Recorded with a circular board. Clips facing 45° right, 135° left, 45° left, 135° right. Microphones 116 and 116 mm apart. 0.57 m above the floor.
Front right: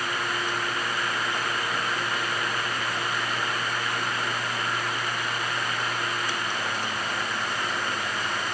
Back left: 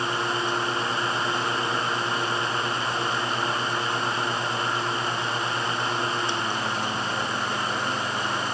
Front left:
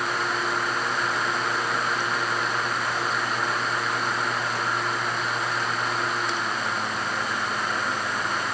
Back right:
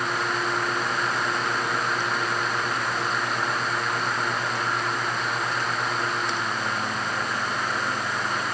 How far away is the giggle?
No giggle in this recording.